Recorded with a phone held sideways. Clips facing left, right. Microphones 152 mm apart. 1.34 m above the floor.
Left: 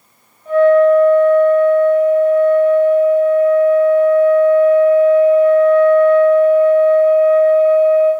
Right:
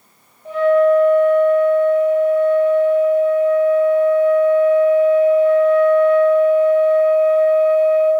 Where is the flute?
80° right, 0.9 m.